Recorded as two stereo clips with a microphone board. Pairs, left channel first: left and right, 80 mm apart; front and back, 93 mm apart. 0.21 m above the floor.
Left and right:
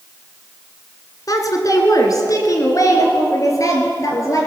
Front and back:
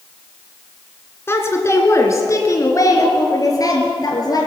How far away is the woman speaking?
About 2 m.